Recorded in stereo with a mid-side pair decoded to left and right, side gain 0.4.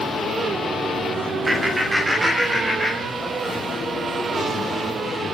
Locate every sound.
1.5 s laughter: 30° right, 1.8 m; by 3.4 s 15° right, 5 m